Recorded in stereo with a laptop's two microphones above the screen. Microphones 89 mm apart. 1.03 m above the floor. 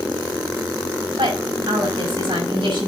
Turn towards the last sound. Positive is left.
turn(degrees=-80)